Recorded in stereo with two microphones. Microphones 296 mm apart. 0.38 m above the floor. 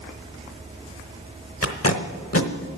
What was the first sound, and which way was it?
Tape being pulled, 50° left (ahead or behind).